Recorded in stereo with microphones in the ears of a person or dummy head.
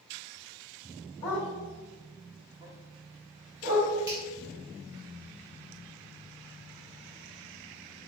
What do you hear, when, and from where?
1.2 s a dog barking: 15° left (ahead or behind), 1.3 m; by 3.9 s 50° right (ahead or behind), 2.5 m
4.1 s a finger snap: 20° right (ahead or behind), 1.2 m